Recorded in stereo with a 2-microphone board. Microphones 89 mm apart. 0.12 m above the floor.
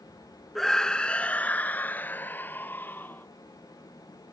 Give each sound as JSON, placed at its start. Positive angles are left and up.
{"t": 0.6, "sound": "a scream", "side_deg": 5}